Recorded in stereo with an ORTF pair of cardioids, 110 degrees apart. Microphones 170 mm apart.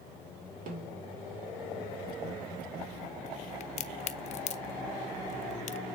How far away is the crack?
About 0.8 m.